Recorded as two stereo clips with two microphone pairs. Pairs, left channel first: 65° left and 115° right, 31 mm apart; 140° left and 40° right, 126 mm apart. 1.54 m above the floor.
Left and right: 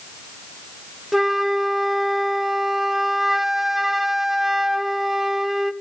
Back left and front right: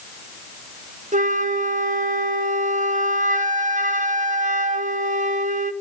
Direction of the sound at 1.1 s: 35° right.